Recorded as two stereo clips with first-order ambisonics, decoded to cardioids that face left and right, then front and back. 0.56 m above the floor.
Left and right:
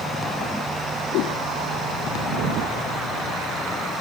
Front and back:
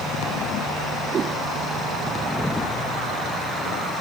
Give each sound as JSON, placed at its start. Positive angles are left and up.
{"t": 1.1, "sound": "a whoosh", "azimuth_deg": 120}